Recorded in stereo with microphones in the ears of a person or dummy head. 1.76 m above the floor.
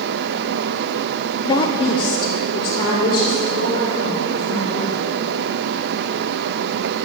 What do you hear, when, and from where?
1.4 s a woman speaking: 30° left (ahead or behind), 0.6 m; by 5.0 s 20° left (ahead or behind), 6 m